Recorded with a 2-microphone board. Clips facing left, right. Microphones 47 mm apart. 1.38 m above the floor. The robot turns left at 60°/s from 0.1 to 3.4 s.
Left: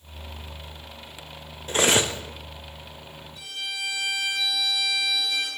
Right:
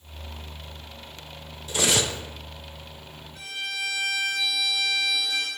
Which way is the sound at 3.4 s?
65° right (ahead or behind).